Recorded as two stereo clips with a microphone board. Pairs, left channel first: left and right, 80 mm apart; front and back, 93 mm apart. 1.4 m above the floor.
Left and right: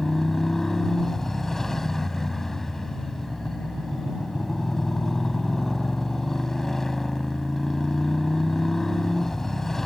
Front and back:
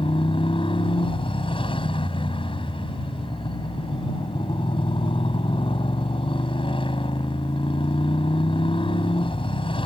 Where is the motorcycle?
5° left.